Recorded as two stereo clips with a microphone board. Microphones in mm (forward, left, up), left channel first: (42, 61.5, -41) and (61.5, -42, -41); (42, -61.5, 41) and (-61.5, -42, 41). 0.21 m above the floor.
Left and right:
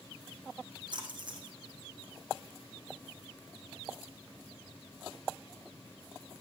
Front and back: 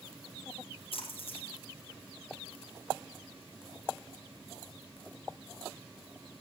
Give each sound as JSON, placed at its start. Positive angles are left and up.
{"t": 0.9, "sound": "a splash", "azimuth_deg": -35, "distance_m": 5.5}